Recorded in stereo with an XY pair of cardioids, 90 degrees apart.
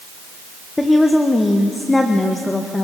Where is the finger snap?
No finger snap in this recording.